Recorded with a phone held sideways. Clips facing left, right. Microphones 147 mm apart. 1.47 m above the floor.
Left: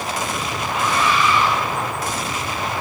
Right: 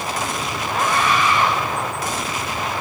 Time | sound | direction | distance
0.7 | a scream | 50° right (ahead or behind) | 6.5 m